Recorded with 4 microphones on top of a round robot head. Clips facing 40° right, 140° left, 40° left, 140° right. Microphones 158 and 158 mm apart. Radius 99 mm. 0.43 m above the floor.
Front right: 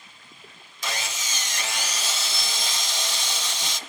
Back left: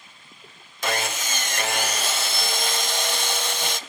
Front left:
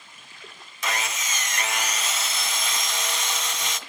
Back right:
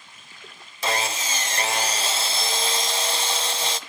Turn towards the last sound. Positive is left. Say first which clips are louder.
# back left 7 dB, back right 4 dB
turn(degrees=165)